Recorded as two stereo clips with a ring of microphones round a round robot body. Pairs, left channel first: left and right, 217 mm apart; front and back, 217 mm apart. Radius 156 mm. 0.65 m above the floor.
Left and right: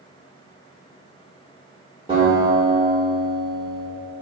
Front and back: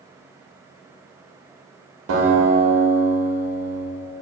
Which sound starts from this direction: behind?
A guitar, at 2.1 s.